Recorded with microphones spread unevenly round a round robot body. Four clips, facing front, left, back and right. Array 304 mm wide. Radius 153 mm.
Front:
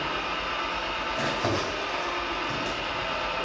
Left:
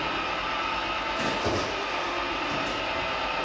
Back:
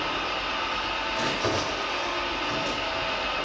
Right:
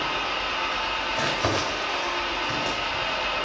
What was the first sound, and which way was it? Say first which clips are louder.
An engine running: right 1 dB, back 1 dB; 145° right.